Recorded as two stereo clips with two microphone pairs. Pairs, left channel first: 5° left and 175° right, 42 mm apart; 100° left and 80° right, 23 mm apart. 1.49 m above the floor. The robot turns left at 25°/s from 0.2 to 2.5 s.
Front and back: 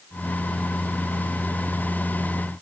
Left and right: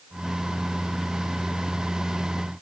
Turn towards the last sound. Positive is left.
No sound to turn to.